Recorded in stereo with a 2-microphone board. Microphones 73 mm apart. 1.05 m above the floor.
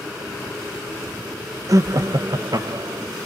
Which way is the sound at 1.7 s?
45° right (ahead or behind).